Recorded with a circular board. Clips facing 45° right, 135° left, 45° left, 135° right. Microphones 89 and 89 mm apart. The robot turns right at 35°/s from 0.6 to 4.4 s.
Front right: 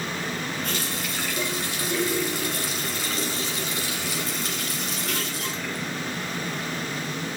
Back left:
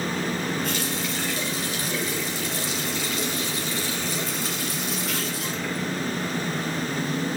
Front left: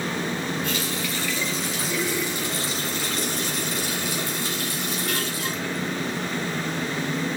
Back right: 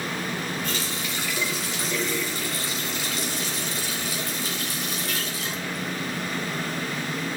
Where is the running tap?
85° right, 2.0 m; by 6.2 s 50° left, 2.0 m.